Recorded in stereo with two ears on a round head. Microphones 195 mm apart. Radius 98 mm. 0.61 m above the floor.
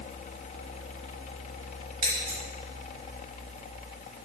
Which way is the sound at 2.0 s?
85° right.